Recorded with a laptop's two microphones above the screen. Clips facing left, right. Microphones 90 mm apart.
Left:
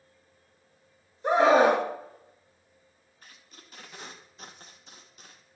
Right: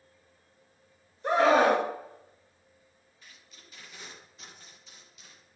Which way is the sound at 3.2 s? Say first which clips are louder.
Left 3 dB; 45° left (ahead or behind).